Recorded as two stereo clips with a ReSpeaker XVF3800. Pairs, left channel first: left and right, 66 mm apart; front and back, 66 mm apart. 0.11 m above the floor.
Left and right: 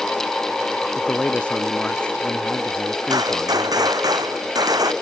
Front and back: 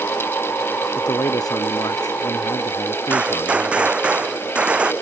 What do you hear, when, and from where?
0.9 s a man speaking: 20° left; by 4.1 s 5° left
3.1 s a gunshot: 105° right